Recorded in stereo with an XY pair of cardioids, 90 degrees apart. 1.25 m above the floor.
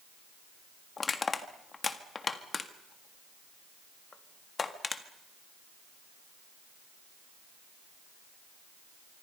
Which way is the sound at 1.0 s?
40° left.